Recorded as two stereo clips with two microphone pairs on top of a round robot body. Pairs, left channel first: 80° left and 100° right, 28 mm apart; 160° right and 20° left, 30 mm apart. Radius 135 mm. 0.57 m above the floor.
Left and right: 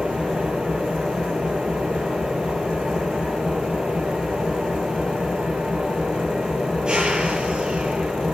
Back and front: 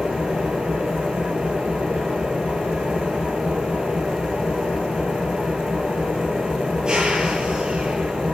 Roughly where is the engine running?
Ahead right.